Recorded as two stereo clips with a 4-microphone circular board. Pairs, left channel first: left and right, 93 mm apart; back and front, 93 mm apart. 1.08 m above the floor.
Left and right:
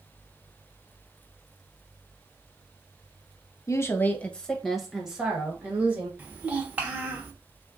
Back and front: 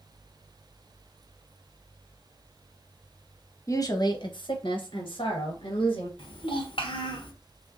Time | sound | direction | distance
3.7 | a woman speaking | 135° left | 0.7 m
6.2 | a child speaking | 160° right | 1.1 m